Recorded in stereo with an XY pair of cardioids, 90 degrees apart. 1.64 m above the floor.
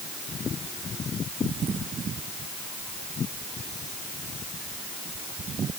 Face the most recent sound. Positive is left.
No sound to turn to.